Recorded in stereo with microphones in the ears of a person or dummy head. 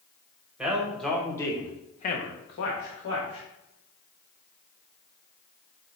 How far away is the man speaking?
About 1.3 m.